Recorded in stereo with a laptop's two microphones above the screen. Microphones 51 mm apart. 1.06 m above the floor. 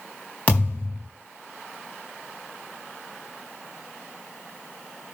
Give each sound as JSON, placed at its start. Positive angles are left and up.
{"t": 0.5, "sound": "a thud", "side_deg": 25, "distance_m": 4.0}